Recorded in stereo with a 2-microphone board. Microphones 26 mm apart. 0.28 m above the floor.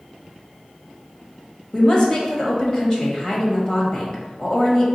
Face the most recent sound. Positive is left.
turn(degrees=30)  # may be behind; listen again after turning